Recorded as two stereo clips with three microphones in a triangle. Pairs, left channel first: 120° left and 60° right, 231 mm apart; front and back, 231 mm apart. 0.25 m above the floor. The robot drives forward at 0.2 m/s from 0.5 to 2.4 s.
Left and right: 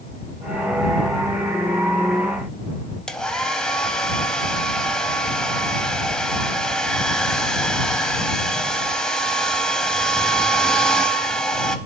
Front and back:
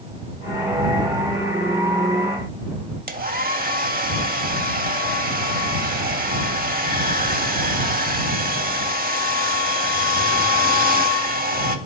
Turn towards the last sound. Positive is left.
turn(degrees=-155)